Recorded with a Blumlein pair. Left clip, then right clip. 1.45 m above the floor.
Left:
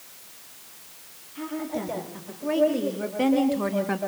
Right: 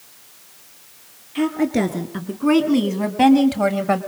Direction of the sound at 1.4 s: 60° right.